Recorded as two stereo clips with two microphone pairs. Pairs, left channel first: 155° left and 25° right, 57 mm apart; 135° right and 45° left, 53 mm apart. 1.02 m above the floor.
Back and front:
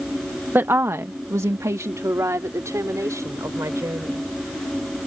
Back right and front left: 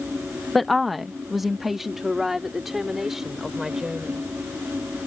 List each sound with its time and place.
0.6 s a woman speaking: 55° right; by 4.3 s 40° right